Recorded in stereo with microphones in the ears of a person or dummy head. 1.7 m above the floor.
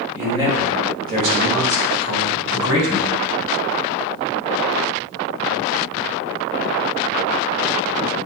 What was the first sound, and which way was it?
A man speaking, 10° right (ahead or behind).